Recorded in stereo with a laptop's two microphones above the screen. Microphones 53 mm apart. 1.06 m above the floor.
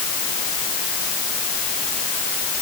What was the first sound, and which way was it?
Only background noise.